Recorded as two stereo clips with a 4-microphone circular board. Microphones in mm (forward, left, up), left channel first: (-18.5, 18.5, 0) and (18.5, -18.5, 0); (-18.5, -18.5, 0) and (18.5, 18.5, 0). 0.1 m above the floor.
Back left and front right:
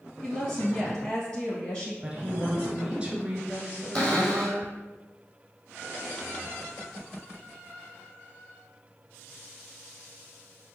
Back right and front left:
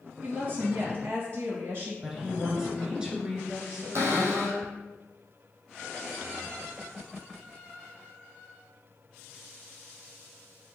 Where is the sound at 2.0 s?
10° right, 1.2 m.